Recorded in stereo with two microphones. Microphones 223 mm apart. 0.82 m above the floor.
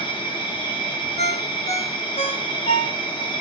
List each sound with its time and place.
0.0 s an insect: 20° left (ahead or behind), 2.0 m
1.2 s a ringtone: 30° left (ahead or behind), 1.2 m